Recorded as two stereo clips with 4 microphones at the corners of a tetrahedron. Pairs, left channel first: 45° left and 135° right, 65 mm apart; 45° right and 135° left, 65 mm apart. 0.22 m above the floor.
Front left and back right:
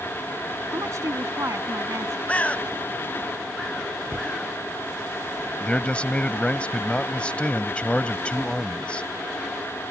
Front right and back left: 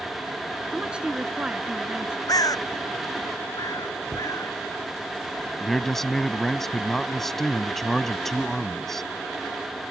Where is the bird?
25° right.